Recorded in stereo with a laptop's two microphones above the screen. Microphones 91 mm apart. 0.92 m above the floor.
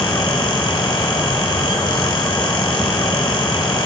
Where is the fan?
60° left (ahead or behind), 1.2 m.